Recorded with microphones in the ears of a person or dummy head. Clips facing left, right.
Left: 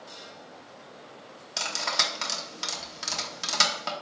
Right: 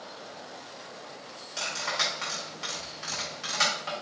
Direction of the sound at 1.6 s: 55° left (ahead or behind).